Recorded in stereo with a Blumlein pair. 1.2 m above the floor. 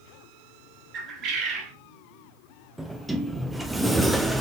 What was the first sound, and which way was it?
A bird, 35° right.